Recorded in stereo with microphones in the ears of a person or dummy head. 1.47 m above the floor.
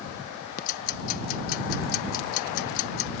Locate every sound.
0.6 s ticking: 45° left (ahead or behind)